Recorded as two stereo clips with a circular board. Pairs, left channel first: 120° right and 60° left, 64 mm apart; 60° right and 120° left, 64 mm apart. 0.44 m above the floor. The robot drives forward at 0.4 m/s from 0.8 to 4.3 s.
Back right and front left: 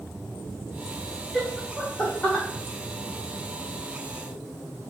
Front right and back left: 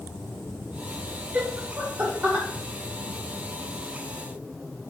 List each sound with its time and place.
1.3 s laughter: 165° left, 0.8 m; by 2.5 s 175° left, 1.1 m